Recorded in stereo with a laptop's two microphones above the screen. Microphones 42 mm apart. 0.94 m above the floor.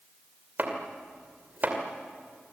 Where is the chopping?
45° right (ahead or behind), 2.5 m.